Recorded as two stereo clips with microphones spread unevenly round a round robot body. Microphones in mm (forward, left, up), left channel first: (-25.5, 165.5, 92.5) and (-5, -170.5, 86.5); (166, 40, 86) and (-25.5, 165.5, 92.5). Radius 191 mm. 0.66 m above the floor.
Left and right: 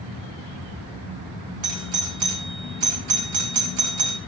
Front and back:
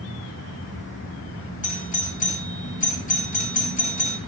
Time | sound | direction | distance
1.6 | a doorbell | 80° right | 2.5 m